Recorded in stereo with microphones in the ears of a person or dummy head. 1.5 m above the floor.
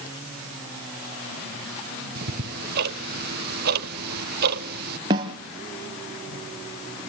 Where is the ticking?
55° right (ahead or behind), 1.1 m.